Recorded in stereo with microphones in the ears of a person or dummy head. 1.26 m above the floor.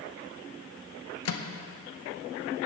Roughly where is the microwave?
Left.